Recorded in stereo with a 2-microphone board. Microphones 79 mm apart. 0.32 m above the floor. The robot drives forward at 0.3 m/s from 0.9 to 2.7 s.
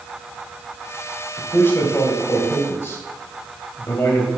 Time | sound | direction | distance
1.4 | a man speaking | 30° left (ahead or behind) | 1.6 m